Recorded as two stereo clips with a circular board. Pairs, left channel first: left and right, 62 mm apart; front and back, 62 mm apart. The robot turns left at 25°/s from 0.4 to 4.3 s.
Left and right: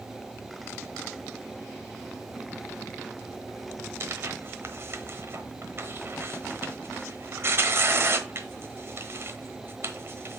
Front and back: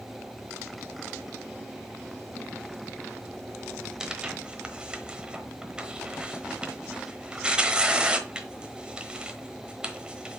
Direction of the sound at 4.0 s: 105° right.